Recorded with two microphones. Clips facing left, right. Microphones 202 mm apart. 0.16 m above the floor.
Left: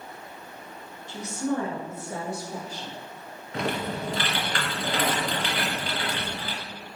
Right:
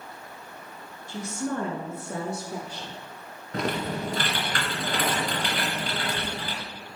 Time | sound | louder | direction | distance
1.1 | a woman speaking | left 2 dB | 50° right (ahead or behind) | 1.8 m
3.5 | typing on a keyboard | right 1 dB | 45° right (ahead or behind) | 1.8 m